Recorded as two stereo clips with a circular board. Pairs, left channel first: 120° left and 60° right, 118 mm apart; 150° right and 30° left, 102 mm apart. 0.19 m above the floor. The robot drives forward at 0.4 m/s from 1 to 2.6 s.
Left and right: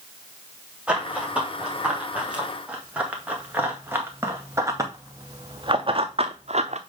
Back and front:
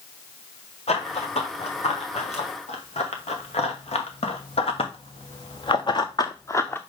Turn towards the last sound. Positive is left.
turn(degrees=-80)